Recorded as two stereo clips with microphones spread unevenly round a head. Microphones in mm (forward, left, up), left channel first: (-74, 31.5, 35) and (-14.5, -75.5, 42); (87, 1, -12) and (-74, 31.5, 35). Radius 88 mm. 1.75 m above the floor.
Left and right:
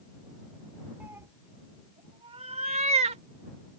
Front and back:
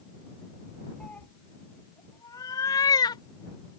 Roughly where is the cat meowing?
Behind right.